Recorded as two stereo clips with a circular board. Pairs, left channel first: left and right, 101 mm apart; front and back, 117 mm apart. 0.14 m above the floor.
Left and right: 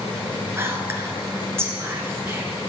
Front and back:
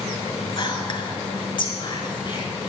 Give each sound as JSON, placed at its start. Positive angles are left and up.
{"t": 0.6, "sound": "whispering", "azimuth_deg": -30, "distance_m": 2.0}